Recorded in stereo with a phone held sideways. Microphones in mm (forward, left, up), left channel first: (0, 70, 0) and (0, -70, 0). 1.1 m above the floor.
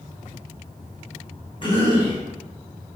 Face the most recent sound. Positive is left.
turn(degrees=40)  # may be behind; listen again after turning